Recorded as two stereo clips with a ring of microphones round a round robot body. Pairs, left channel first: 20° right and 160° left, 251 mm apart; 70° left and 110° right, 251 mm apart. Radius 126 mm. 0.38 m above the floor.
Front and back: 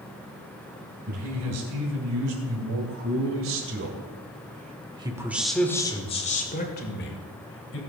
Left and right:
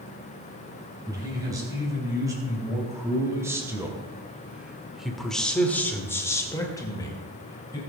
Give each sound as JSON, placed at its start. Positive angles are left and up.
{"t": 1.1, "sound": "a man speaking", "azimuth_deg": 170, "distance_m": 4.5}